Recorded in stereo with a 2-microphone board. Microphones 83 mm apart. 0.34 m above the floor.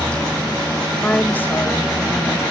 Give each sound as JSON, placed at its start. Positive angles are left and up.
{"t": 1.0, "sound": "a woman speaking", "side_deg": 15}